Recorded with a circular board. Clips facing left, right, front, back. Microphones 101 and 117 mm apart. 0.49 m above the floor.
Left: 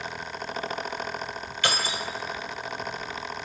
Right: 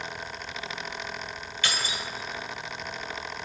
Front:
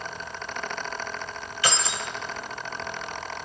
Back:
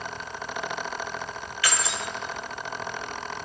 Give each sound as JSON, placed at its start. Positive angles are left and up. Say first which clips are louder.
{"t": 1.6, "sound": "keys jangling", "louder": "left 4 dB, front 1 dB", "azimuth_deg": 60, "distance_m": 1.2}